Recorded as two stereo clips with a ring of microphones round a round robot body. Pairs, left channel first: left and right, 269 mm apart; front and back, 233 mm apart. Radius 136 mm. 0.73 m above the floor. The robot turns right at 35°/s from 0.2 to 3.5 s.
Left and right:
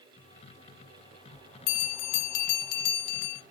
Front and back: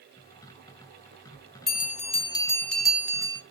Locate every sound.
1.7 s a bell: 50° left, 1.0 m; by 3.4 s 110° left, 1.0 m